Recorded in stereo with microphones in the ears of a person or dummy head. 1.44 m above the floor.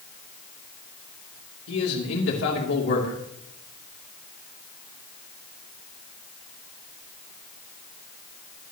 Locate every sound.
1.7 s a man speaking: 75° left (ahead or behind), 3 m